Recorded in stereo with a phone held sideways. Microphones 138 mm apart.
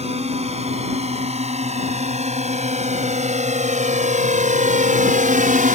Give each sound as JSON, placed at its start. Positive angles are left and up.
{"t": 0.0, "sound": "a drone", "side_deg": -50}